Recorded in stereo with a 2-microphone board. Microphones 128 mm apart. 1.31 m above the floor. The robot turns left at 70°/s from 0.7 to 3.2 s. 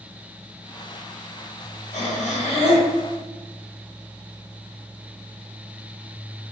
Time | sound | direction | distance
1.9 | breathing | 105° left | 2.5 m